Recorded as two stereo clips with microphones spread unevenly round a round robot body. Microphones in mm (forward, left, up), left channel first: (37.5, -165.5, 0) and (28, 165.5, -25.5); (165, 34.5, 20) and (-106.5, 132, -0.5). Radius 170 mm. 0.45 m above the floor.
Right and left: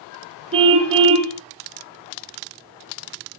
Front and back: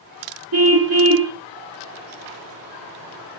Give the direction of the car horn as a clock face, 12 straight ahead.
6 o'clock.